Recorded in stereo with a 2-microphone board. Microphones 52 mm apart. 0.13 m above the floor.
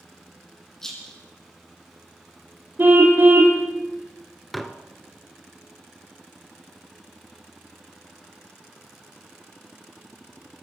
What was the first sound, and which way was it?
A rattle, 10° left (ahead or behind).